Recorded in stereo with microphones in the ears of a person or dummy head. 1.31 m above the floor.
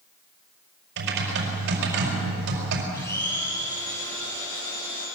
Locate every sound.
1.0 s typing on a keyboard: 65° right (ahead or behind), 5 m
2.9 s a blender: 15° left (ahead or behind), 9.5 m